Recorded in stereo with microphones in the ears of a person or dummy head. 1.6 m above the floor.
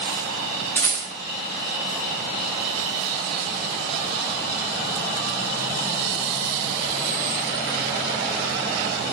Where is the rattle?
15° left (ahead or behind), 0.6 m.